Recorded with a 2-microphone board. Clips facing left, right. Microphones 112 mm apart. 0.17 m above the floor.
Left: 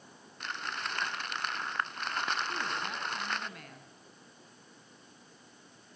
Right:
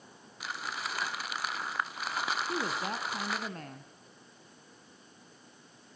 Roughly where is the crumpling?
Centre.